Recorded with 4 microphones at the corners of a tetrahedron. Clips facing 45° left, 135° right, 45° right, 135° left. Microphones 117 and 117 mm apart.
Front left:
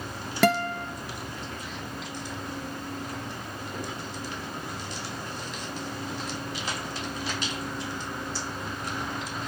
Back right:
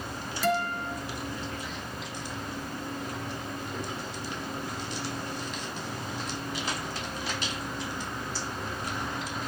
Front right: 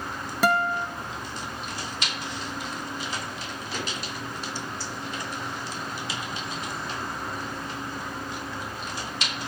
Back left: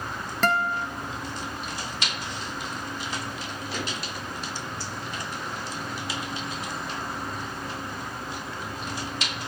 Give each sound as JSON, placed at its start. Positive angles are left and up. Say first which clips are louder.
{"t": 0.4, "sound": "a guitar", "louder": "front left 4 dB, front right 2 dB", "azimuth_deg": 35, "distance_m": 0.7}